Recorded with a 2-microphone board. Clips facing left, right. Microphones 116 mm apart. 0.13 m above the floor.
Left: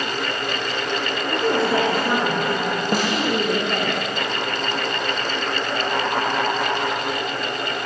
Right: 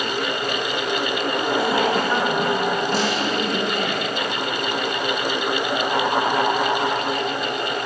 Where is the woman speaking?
80° left, 9.5 m.